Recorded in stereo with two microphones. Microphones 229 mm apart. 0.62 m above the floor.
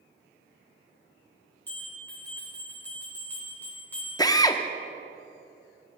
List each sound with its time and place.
1.7 s a bell: 10° left (ahead or behind), 4 m
4.2 s a drill: 15° left (ahead or behind), 0.5 m